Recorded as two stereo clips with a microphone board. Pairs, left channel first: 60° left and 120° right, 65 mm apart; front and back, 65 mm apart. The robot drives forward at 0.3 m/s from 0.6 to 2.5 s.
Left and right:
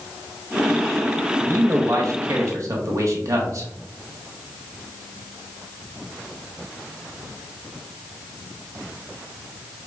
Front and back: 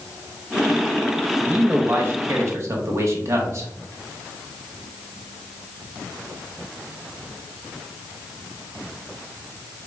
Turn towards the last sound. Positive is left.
turn(degrees=-145)